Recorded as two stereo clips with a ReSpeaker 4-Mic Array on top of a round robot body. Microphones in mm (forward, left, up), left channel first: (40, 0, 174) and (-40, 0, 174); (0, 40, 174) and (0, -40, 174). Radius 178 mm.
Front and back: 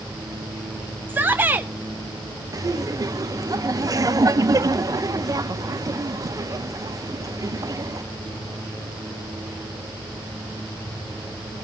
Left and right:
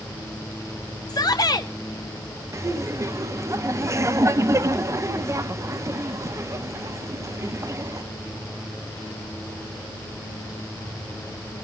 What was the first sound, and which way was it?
A shout, 120° left.